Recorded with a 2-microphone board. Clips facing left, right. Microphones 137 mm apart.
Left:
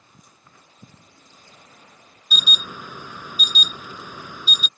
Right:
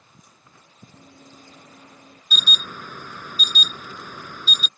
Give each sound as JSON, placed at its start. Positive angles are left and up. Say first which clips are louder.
{"t": 0.9, "sound": "running footsteps", "louder": "right 6 dB", "side_deg": -65}
{"t": 2.3, "sound": "an alarm", "louder": "left 1 dB", "side_deg": 10}